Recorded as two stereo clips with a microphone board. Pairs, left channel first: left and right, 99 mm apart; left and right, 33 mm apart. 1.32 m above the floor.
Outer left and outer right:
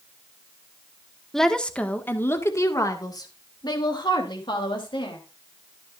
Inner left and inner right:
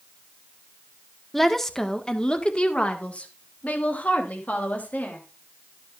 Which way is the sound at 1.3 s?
5° left (ahead or behind).